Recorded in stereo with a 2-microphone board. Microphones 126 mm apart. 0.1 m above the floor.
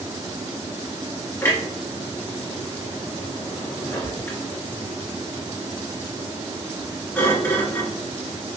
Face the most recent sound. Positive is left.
turn(degrees=20)  # may be behind; listen again after turning